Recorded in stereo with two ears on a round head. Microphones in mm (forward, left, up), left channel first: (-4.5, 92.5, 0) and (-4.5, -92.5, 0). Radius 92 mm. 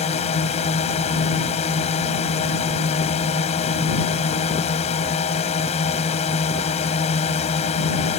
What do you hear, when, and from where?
0.0 s a drone: 30° left (ahead or behind)